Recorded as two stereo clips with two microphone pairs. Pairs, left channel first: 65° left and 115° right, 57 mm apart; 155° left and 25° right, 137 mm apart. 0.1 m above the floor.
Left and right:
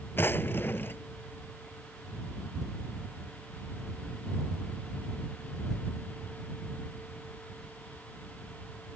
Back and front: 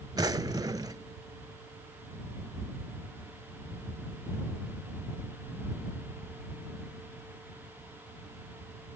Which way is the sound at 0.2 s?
30° left.